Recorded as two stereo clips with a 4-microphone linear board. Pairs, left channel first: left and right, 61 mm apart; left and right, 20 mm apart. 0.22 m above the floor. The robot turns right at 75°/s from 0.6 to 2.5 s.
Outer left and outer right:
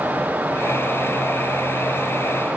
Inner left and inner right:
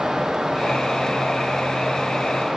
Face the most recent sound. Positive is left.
No sound to turn to.